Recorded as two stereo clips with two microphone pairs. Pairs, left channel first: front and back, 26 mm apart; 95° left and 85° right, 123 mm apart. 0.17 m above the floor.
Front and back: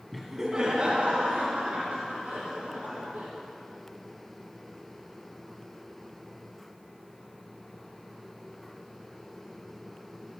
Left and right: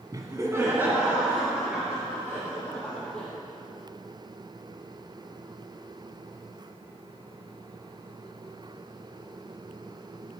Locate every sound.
0.1 s laughter: 85° right, 1.1 m; by 3.3 s 175° right, 4 m